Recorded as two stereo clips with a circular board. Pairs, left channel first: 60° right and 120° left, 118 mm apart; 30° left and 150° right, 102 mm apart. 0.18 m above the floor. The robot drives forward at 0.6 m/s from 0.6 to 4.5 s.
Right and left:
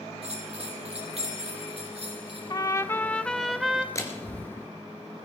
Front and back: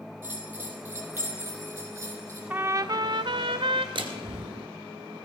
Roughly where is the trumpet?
Right.